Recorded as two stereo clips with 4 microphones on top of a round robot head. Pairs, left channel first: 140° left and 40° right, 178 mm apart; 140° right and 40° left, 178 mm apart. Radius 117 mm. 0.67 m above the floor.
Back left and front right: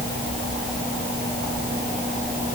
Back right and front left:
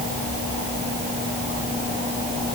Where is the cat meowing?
I don't hear a cat meowing.